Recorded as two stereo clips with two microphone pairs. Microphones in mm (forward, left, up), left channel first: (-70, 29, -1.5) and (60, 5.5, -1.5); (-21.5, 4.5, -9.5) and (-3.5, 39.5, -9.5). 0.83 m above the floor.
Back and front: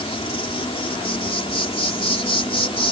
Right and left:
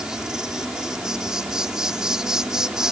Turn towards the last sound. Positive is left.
turn(degrees=130)